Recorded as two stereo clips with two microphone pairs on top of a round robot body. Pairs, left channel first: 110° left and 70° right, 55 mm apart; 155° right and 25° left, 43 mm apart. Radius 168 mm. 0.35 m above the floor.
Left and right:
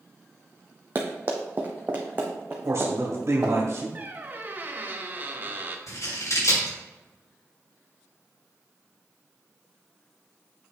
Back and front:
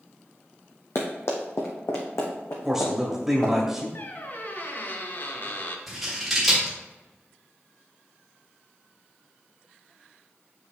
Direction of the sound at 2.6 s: 45° right.